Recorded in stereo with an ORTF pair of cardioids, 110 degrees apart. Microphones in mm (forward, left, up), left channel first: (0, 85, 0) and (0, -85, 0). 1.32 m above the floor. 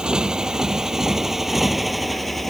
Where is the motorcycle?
5° right; by 2.5 s straight ahead.